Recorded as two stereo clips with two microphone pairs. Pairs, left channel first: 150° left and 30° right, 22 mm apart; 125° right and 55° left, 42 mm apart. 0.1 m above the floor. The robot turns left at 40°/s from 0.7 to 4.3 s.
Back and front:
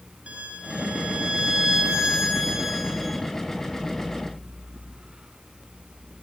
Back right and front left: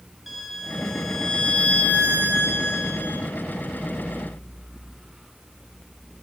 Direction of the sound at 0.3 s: 30° right.